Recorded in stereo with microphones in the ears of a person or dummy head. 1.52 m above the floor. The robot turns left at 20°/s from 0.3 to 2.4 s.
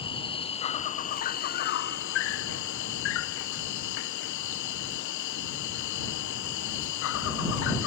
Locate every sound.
0.0 s an insect: 160° left; by 7.9 s 115° left